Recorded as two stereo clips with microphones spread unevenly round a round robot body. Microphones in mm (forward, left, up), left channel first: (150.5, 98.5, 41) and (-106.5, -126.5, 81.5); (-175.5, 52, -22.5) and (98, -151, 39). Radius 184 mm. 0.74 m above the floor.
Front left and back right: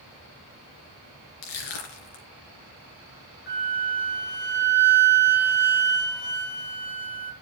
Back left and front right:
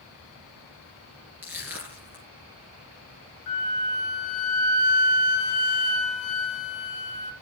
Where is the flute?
100° left, 1.8 m.